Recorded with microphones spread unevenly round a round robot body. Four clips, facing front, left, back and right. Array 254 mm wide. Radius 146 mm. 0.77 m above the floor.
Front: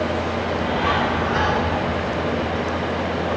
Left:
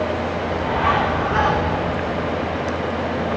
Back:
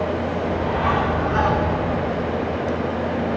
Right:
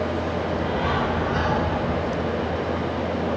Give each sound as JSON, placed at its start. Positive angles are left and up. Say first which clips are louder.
{"t": 0.4, "sound": "a bird", "louder": "left 4 dB, back 1 dB", "azimuth_deg": 100, "distance_m": 2.0}